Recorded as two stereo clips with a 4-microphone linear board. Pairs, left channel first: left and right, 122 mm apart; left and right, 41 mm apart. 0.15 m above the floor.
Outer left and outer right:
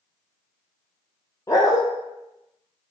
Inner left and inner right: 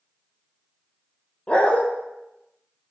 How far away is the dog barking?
About 1.1 m.